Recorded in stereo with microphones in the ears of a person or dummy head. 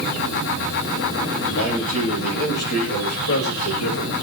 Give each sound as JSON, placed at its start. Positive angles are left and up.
{"t": 1.5, "sound": "a man speaking", "side_deg": 50, "distance_m": 8.5}